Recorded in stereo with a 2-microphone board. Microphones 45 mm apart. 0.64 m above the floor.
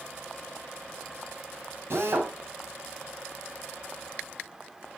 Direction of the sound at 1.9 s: 70° right (ahead or behind).